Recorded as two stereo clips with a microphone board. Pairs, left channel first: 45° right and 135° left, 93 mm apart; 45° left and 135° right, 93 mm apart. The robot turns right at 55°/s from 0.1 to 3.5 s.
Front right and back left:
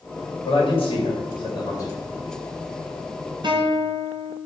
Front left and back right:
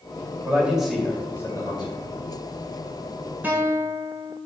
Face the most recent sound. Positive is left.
turn(degrees=160)